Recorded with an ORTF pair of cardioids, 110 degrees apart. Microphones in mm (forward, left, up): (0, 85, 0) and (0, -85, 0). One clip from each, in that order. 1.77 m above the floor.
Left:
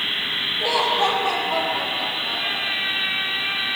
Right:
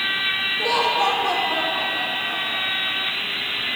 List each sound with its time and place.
0.6 s laughter: 25° right, 3.5 m